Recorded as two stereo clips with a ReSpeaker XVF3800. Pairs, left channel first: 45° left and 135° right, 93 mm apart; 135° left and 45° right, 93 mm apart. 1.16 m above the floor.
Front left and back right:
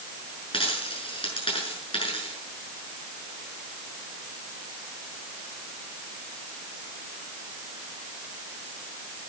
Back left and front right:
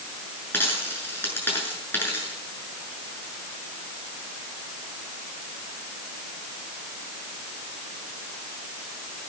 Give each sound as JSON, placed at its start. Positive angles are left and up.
{"t": 0.5, "sound": "a dropped coin", "azimuth_deg": 70, "distance_m": 6.5}